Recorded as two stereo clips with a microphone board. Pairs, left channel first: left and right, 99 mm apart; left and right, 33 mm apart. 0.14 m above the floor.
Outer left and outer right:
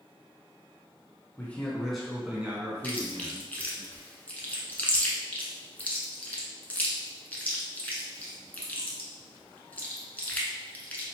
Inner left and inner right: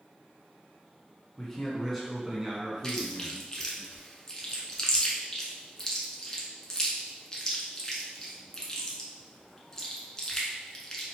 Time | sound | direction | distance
1.4 | a man speaking | 20° left (ahead or behind) | 1.1 m
2.8 | chewing | 20° left (ahead or behind) | 0.8 m